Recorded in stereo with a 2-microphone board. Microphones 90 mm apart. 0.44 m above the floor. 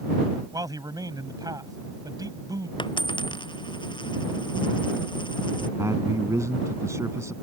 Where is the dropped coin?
60° left (ahead or behind).